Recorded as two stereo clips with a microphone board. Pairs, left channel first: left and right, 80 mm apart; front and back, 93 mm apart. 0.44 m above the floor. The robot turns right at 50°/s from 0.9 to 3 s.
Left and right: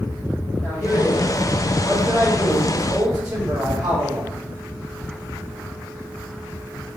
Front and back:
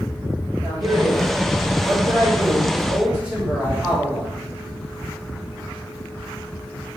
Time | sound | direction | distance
0.6 | a man speaking | 150° left | 1.8 m